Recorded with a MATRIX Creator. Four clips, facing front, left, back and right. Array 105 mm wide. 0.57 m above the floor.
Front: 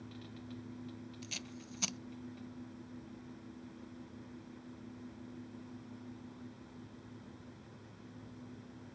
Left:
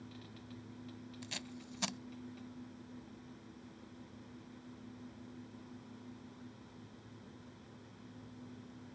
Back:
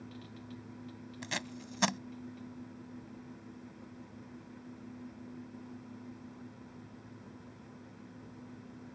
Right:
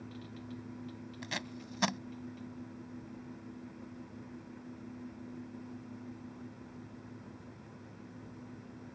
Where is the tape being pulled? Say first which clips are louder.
Right 9 dB, back 7 dB; 145° right.